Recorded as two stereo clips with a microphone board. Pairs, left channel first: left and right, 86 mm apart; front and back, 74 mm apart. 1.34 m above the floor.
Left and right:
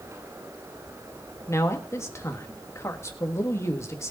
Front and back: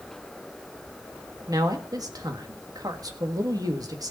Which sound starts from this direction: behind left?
A man speaking, at 1.5 s.